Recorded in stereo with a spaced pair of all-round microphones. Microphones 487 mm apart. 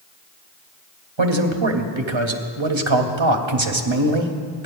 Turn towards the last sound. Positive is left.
turn(degrees=-65)  # may be behind; listen again after turning